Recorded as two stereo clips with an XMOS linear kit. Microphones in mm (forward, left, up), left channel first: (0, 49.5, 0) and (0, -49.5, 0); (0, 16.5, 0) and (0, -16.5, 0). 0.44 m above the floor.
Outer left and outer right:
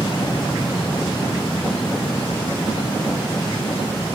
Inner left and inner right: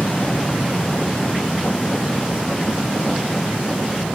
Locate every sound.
0.0 s an aircraft: 45° left (ahead or behind); by 4.2 s 55° left (ahead or behind)